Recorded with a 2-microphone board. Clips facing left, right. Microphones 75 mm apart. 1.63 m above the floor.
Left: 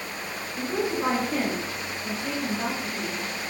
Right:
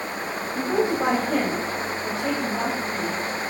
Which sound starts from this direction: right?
A woman speaking, at 0.6 s.